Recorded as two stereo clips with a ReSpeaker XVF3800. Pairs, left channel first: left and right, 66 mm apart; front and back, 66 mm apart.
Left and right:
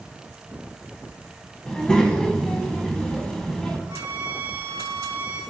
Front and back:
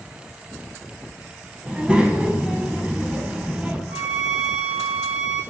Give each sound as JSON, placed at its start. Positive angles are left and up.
{"t": 1.7, "sound": "a child speaking", "azimuth_deg": 145, "distance_m": 0.6}
{"t": 3.9, "sound": "a violin", "azimuth_deg": -105, "distance_m": 0.6}